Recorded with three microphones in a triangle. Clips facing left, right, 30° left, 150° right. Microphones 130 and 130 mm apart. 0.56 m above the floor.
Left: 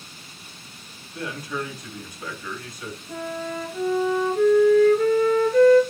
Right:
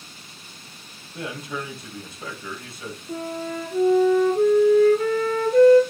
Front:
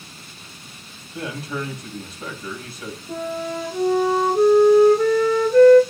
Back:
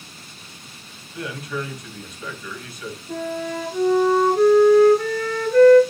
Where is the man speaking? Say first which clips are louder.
Left 1 dB, front 1 dB; 30° right, 3.5 m.